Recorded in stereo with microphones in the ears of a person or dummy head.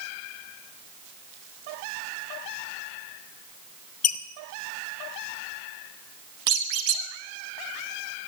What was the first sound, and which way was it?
A squeak, 45° left (ahead or behind).